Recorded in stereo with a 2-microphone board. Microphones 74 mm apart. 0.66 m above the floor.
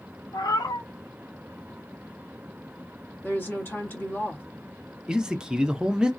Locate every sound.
0.3 s a cat meowing: 60° left (ahead or behind), 0.5 m
3.2 s a woman speaking: 30° left (ahead or behind), 1.2 m
5.1 s a man speaking: 10° right (ahead or behind), 0.5 m